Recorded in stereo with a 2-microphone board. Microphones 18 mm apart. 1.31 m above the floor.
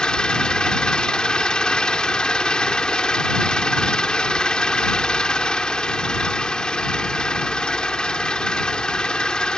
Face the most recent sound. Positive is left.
turn(degrees=80)